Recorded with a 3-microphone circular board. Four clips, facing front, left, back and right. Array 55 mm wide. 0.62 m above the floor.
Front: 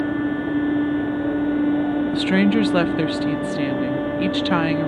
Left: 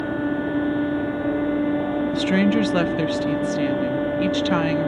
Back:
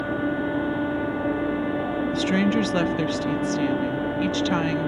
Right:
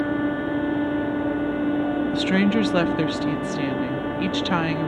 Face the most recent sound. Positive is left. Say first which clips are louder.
# left 2 dB, front 3 dB
turn(degrees=-10)